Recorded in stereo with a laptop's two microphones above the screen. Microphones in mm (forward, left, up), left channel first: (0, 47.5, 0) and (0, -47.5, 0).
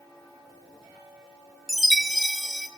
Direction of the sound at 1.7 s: Centre (ahead or behind).